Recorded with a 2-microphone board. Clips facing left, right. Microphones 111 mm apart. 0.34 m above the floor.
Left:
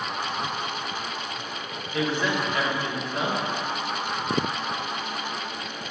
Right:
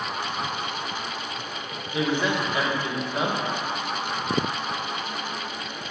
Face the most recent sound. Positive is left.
turn(degrees=-20)  # may be behind; listen again after turning